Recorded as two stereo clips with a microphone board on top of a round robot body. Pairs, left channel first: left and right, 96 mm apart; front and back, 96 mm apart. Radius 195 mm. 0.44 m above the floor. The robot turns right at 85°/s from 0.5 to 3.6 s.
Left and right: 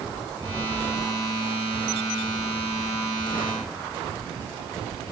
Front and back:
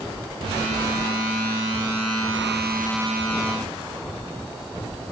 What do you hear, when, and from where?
Only background noise.